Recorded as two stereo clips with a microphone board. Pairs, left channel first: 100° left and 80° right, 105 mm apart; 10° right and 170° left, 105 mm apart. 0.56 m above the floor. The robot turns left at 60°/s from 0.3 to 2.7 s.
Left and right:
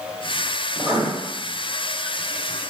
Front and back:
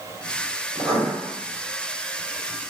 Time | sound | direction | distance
0.8 | writing | 140° right | 2 m